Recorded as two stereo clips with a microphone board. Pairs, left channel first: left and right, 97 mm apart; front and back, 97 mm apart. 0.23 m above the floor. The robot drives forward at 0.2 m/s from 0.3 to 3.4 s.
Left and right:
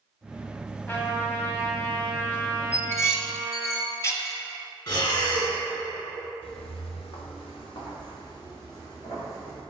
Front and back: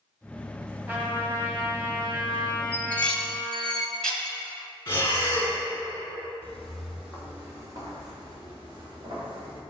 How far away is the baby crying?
No baby crying in this recording.